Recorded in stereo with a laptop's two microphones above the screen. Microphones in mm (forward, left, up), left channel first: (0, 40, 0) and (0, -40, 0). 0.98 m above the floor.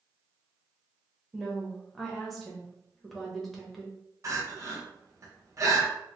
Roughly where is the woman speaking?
Centre.